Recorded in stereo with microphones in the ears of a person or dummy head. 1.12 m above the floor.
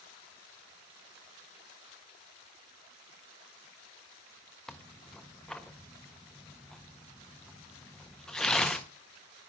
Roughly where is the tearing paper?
Centre.